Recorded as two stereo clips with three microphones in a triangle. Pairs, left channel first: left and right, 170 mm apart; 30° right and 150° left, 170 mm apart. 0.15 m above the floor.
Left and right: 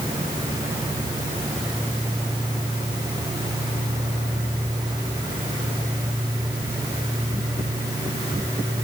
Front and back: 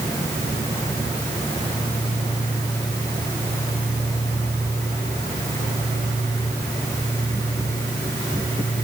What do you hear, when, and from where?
Only background noise.